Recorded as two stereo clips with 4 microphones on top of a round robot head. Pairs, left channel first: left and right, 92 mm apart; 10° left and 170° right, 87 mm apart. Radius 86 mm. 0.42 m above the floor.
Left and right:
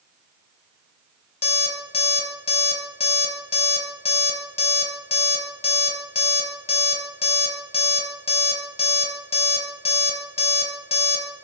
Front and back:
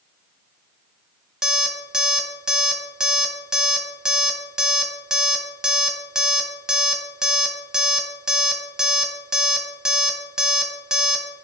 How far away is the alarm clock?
About 1.2 m.